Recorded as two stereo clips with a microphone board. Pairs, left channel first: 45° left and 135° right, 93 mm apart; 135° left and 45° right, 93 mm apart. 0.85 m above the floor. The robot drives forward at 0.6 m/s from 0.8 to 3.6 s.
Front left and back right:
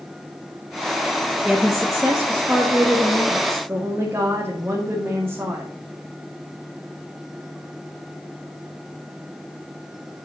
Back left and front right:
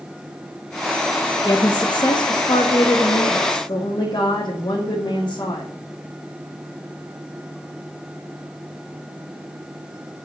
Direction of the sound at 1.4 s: 130° left.